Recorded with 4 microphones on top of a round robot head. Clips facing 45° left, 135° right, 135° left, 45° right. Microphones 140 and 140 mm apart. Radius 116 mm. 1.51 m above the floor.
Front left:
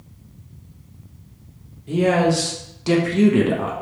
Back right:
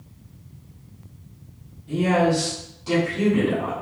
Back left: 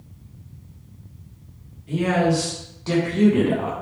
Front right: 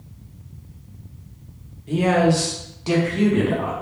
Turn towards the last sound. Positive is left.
turn(degrees=70)